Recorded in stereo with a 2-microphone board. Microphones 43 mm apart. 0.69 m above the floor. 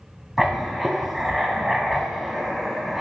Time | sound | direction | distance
0.4 | writing | 5° right (ahead or behind) | 0.7 m